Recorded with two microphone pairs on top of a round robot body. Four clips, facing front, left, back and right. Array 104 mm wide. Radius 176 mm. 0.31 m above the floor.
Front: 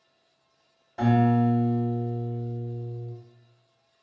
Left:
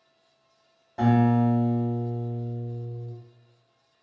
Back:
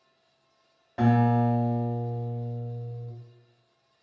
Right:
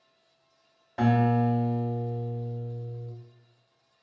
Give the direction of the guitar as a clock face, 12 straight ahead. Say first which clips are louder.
Left 3 dB, front 1 dB; 5 o'clock.